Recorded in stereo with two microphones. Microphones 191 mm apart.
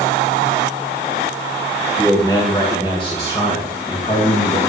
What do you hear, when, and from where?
2.0 s a man speaking: 15° left (ahead or behind), 1.9 m; by 4.6 s 35° left (ahead or behind), 3 m